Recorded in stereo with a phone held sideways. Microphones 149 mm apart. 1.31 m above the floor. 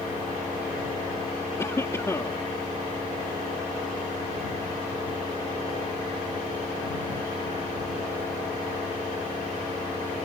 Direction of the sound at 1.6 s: 20° left (ahead or behind).